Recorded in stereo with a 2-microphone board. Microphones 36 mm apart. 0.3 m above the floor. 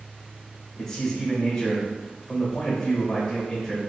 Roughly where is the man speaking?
Centre.